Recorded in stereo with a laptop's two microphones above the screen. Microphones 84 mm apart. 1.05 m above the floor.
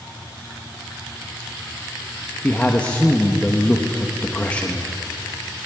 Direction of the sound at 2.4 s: 15° left (ahead or behind).